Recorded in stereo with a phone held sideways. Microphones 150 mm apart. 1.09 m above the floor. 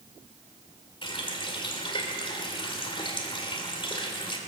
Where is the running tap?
35° left (ahead or behind), 2 m.